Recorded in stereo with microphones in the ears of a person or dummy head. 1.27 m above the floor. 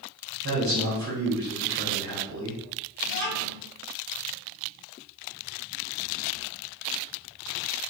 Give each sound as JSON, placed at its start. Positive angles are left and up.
{"t": 0.4, "sound": "a man speaking", "side_deg": -75, "distance_m": 1.6}
{"t": 3.0, "sound": "a child speaking", "side_deg": -45, "distance_m": 1.2}